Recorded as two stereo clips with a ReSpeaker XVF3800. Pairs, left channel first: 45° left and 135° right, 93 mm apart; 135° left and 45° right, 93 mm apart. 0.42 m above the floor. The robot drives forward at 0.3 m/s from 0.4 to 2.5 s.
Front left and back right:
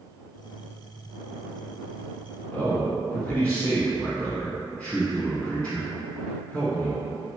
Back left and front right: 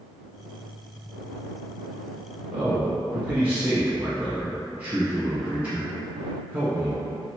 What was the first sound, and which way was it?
A man speaking, 15° right.